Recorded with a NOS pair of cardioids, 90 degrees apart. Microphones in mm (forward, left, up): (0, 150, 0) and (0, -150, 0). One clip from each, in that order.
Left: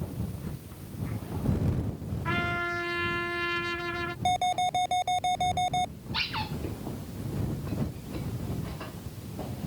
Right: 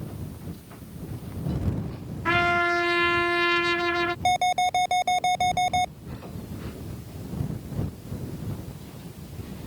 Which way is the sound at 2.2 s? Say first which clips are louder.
Right 8 dB; 40° right.